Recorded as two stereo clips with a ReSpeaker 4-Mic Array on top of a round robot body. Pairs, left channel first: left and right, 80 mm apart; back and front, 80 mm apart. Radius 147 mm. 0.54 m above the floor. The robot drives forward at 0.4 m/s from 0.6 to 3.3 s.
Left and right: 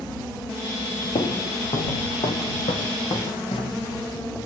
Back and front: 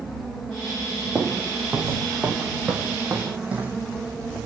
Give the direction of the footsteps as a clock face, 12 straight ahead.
9 o'clock.